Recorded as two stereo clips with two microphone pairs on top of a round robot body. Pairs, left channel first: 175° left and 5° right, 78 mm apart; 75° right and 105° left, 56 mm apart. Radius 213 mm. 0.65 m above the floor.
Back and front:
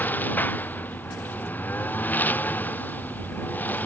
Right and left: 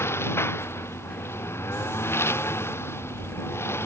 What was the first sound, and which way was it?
A lawn mower, 120° right.